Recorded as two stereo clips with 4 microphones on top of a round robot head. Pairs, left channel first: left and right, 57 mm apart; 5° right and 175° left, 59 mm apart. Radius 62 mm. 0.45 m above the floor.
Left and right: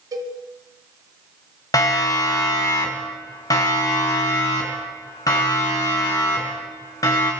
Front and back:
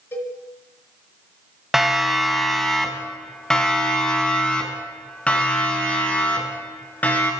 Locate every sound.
0.1 s a cowbell: 65° right, 2.5 m
1.7 s a siren: 90° left, 3 m; by 7.3 s 60° left, 6.5 m